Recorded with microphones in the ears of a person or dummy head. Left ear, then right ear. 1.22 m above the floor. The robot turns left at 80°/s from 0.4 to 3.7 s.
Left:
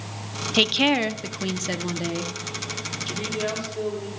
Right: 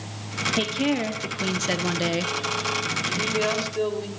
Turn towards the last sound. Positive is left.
turn(degrees=-40)